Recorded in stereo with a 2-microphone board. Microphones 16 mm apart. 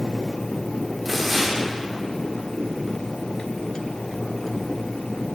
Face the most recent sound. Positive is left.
turn(degrees=-5)  # may be behind; listen again after turning